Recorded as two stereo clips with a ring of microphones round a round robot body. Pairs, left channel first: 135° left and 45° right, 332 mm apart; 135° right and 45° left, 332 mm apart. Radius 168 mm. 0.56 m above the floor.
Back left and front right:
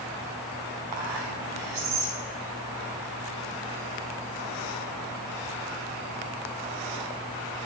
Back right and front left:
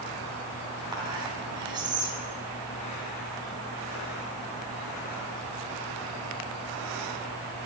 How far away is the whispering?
About 5 m.